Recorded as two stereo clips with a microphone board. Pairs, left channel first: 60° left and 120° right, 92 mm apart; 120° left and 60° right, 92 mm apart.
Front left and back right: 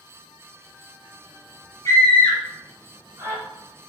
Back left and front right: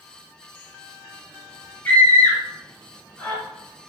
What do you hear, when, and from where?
1.9 s a scream: 55° left, 1.3 m; by 3.4 s 175° right, 1.8 m